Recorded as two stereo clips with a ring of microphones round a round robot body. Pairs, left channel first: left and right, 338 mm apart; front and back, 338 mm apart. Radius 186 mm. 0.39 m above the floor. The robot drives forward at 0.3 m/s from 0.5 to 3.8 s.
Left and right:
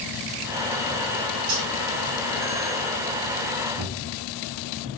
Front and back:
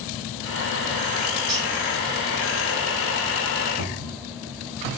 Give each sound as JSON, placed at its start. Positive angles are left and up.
{"t": 1.5, "sound": "cutlery clinking", "azimuth_deg": -115, "distance_m": 2.0}
{"t": 3.8, "sound": "a cupboard door", "azimuth_deg": -140, "distance_m": 4.0}